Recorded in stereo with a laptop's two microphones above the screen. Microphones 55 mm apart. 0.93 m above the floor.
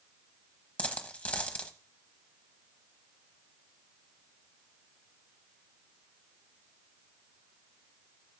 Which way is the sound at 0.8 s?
25° left (ahead or behind).